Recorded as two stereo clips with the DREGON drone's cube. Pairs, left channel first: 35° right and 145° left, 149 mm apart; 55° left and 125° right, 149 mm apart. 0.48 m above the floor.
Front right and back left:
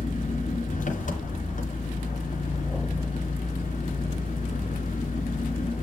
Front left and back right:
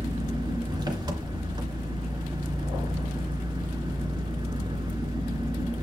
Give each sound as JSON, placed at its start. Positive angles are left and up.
{"t": 0.0, "sound": "an engine running", "azimuth_deg": -65, "distance_m": 3.0}